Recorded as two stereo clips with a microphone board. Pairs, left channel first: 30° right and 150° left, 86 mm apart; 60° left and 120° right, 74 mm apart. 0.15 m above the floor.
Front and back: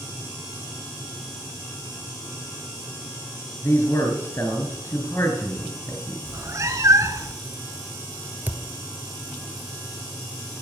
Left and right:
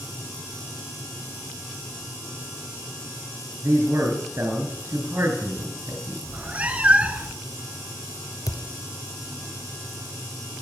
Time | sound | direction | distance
3.6 | a man speaking | 75° right | 2.5 m
6.3 | a cat meowing | straight behind | 0.7 m
8.5 | a thud | 85° left | 1.4 m